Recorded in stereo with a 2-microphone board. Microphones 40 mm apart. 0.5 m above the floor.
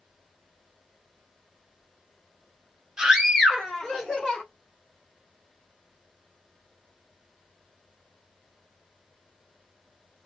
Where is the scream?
15° right (ahead or behind), 1.5 m; by 4.4 s 20° left (ahead or behind), 2.5 m.